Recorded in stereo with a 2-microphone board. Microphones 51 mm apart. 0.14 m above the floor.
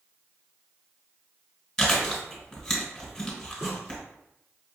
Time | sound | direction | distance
1.8 | chewing | 10° left (ahead or behind) | 1.7 m
3.6 | a snare drum | 40° right (ahead or behind) | 1.7 m